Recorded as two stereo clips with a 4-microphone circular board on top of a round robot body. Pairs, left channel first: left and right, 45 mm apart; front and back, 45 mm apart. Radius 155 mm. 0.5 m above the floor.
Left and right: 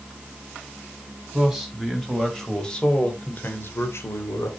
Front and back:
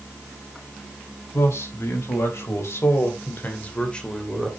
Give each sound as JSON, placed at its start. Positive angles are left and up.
{"t": 1.3, "sound": "a man speaking", "azimuth_deg": -5, "distance_m": 4.0}